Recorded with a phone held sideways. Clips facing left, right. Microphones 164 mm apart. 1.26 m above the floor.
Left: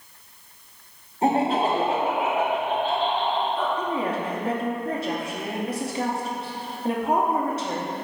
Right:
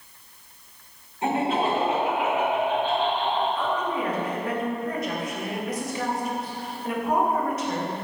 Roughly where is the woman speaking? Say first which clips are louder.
Left 1 dB; left.